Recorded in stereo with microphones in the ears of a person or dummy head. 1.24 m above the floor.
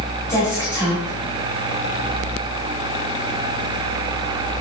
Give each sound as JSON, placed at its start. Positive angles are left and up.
{"t": 0.3, "sound": "a woman speaking", "side_deg": 15, "distance_m": 3.5}